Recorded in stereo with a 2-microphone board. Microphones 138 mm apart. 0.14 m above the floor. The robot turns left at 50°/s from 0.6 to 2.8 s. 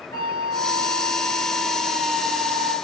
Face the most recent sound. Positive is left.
turn(degrees=-60)